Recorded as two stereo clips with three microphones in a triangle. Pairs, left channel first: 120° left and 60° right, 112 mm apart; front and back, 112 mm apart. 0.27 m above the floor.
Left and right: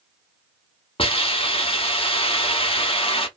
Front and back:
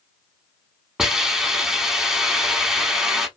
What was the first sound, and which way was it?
A hiss, 95° left.